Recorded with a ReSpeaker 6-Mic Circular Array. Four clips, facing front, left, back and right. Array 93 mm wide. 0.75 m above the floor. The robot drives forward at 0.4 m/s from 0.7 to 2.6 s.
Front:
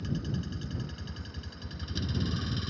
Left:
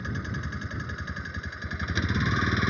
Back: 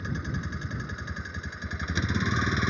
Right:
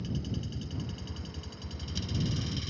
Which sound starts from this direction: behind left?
A vehicle, at 0.0 s.